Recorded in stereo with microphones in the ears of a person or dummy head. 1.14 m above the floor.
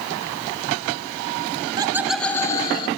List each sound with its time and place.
1.6 s laughter: 30° right (ahead or behind), 0.5 m; by 2.9 s 25° left (ahead or behind), 0.9 m